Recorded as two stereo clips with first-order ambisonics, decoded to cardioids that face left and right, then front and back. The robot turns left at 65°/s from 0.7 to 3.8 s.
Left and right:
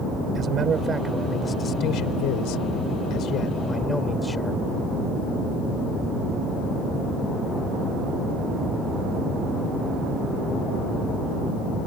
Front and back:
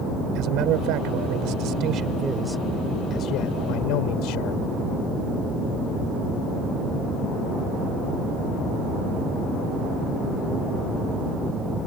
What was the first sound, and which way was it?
A man speaking, 150° right.